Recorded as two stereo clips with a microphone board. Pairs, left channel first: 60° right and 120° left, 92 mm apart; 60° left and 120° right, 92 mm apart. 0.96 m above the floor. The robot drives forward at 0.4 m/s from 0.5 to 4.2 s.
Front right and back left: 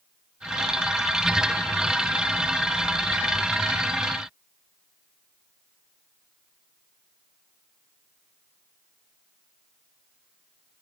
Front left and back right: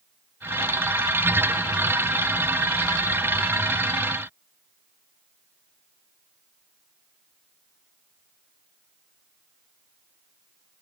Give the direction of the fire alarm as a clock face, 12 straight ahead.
No fire alarm in this recording.